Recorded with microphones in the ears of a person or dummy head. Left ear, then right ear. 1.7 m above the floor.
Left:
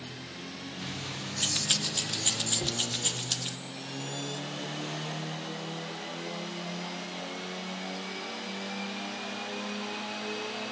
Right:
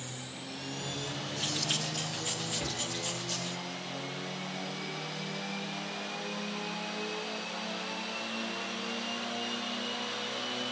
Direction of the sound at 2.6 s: Centre (ahead or behind).